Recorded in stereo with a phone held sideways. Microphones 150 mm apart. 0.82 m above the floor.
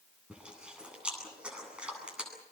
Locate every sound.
0.3 s chewing: 5° right (ahead or behind), 9.5 m